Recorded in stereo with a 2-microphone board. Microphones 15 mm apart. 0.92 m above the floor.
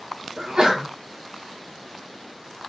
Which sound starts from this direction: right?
A sneeze, at 0.4 s.